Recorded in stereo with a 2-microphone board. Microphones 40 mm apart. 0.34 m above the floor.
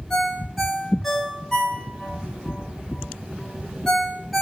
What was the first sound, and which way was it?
A ringtone, 5° left (ahead or behind).